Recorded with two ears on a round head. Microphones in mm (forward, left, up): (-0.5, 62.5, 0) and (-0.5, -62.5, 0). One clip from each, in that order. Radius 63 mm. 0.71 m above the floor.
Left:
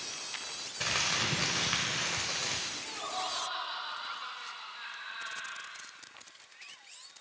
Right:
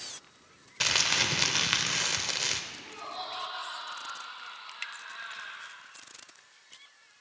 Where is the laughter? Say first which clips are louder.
Left 3 dB; 25° left (ahead or behind), 2.5 m.